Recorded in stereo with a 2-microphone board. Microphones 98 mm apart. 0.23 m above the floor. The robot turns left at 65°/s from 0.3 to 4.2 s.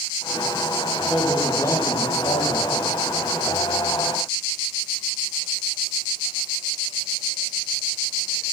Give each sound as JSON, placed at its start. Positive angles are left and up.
{"t": 1.1, "sound": "a man speaking", "azimuth_deg": -175, "distance_m": 7.0}